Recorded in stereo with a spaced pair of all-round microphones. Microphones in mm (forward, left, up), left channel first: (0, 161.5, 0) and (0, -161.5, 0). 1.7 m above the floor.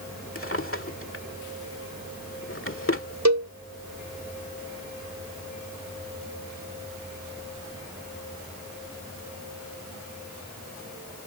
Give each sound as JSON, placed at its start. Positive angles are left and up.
{"t": 0.3, "sound": "a drawer", "side_deg": 40}
{"t": 3.2, "sound": "a cowbell", "side_deg": -55}